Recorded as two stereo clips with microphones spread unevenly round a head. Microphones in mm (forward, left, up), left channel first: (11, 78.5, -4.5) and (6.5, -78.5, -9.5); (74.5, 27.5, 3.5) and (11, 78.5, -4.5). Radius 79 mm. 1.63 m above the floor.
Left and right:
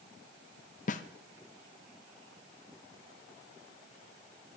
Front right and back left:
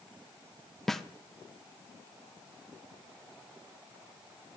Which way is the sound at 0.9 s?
45° left.